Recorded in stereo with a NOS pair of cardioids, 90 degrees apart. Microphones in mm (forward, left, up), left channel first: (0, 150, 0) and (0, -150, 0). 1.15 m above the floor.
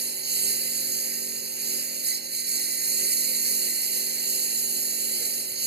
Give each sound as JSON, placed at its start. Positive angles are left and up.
{"t": 0.0, "sound": "a lawn mower", "azimuth_deg": -35}